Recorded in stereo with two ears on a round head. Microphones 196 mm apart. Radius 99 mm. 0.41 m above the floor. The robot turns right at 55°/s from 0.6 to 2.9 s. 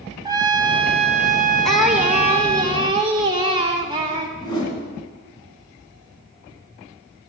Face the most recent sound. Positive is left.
turn(degrees=20)  # may be behind; listen again after turning